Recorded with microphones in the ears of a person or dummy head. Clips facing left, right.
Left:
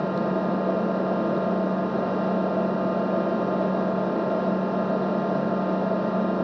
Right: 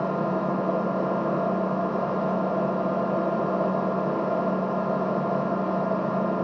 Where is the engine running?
20° left (ahead or behind), 1.3 m.